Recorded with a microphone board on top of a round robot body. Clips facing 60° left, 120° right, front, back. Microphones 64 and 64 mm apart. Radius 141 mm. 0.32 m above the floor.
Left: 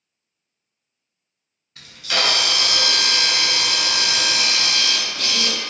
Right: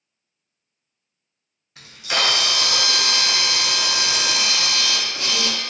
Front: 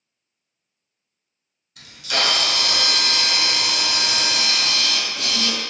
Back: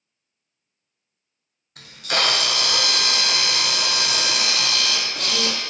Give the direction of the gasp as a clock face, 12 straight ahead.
No gasp in this recording.